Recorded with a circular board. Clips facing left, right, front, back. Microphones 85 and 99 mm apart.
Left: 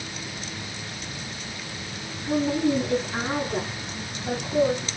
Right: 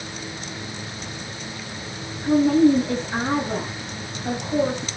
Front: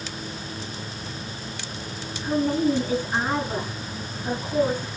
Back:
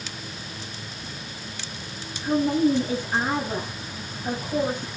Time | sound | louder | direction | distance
2.2 | a woman speaking | right 7 dB, back 1 dB | 110° right | 6 m